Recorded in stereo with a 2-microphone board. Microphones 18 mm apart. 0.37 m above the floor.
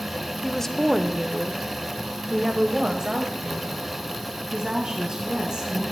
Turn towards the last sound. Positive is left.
turn(degrees=-60)  # may be behind; listen again after turning